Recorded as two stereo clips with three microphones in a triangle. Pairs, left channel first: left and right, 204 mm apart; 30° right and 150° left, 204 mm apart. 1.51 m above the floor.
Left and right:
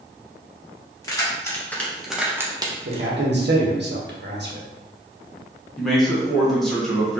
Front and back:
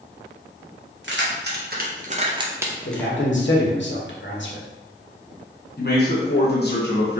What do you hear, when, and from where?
1.0 s keys jangling: 160° left, 1.1 m; by 3.1 s 100° right, 0.6 m
2.9 s a man speaking: 55° right, 1.1 m
5.8 s a man speaking: straight ahead, 1.0 m